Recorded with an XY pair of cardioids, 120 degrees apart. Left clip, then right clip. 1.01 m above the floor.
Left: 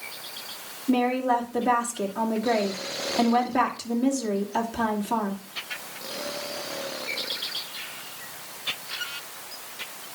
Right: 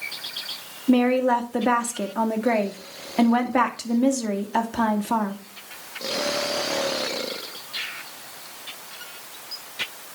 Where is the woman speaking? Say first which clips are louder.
Right 4 dB; 45° right, 2.5 m.